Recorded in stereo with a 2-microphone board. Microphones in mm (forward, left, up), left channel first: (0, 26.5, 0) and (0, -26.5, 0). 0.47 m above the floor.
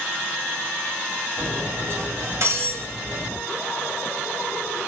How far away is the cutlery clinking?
About 1.6 m.